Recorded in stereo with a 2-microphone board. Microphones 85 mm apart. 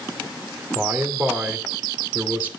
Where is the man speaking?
20° right (ahead or behind), 2.5 m.